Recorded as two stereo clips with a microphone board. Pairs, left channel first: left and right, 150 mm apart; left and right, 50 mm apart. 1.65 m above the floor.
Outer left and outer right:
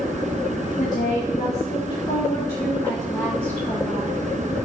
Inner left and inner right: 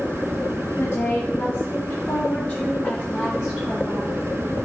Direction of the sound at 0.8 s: 60° left (ahead or behind).